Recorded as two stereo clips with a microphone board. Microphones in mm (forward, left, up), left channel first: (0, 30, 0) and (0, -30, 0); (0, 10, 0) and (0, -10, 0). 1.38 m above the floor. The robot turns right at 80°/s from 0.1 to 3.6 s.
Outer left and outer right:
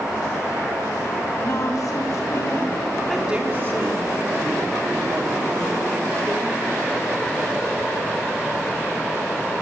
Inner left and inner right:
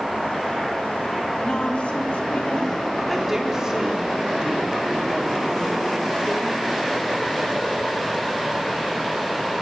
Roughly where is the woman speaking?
Ahead left.